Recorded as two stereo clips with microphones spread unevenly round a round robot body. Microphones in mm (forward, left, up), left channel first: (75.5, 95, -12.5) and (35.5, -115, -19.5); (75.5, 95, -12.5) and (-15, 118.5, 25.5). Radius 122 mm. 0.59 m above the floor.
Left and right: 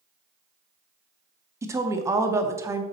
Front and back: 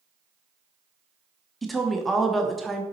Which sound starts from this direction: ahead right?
A woman speaking, at 1.6 s.